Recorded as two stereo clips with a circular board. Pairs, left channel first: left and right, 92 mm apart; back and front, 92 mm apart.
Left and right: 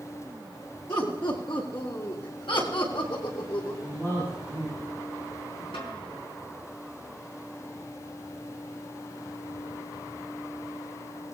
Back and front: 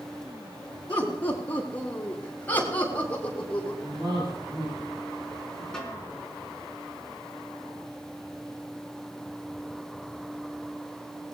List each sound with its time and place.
0.9 s laughter: 110° left, 8 m
3.8 s a man speaking: 30° left, 7.5 m
5.7 s a snare drum: 100° left, 4.5 m